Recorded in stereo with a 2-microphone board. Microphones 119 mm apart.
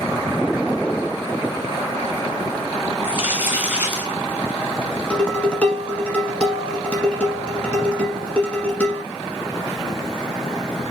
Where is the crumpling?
15° right (ahead or behind), 1.8 m.